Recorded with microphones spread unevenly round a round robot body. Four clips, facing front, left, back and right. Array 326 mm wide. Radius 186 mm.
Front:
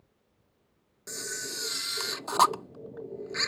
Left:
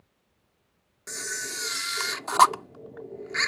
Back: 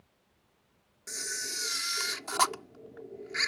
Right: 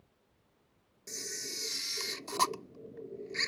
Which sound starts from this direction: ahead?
A camera shutter, at 1.1 s.